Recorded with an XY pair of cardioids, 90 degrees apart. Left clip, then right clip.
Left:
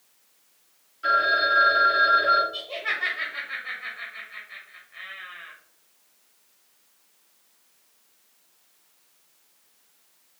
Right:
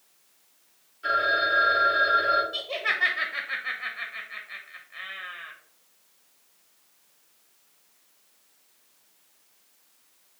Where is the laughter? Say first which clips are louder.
Right 2 dB; 30° right, 0.6 m.